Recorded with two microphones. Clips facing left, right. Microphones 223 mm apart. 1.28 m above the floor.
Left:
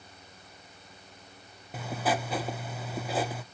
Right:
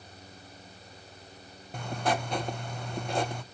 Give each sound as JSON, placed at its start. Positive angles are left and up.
{"t": 1.7, "sound": "writing", "side_deg": 5, "distance_m": 0.5}